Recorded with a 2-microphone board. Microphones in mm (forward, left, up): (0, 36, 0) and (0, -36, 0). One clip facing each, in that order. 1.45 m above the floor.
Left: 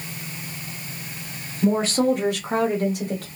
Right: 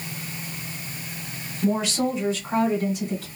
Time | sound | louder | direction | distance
1.6 | a woman speaking | left 4 dB | 25° left (ahead or behind) | 0.8 m